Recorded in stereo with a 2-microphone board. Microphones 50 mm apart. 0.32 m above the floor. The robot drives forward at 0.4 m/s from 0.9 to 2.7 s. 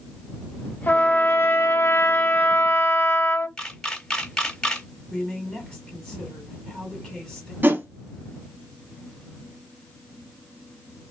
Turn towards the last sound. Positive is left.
turn(degrees=-40)  # may be behind; listen again after turning